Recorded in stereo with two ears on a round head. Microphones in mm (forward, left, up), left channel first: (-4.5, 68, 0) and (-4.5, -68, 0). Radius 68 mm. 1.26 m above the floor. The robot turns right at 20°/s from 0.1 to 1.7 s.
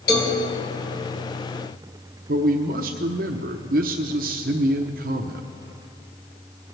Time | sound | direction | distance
0.1 | a cowbell | 70° left (ahead or behind) | 2.5 m
2.3 | a man speaking | 60° right (ahead or behind) | 0.7 m